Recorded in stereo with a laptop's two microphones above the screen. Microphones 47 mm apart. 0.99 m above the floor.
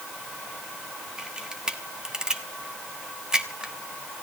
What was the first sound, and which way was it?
A camera shutter, 15° right (ahead or behind).